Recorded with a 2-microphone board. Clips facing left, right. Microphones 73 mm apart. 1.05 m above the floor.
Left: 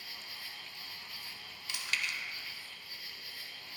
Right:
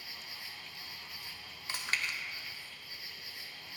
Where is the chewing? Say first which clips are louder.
Right 1 dB; 40° right (ahead or behind), 0.9 m.